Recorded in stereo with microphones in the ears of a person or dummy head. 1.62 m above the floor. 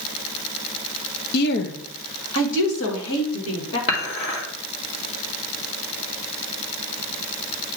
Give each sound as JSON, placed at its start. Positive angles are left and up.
{"t": 1.3, "sound": "a woman speaking", "side_deg": 55, "distance_m": 0.7}
{"t": 3.9, "sound": "dishes clattering", "side_deg": 35, "distance_m": 2.0}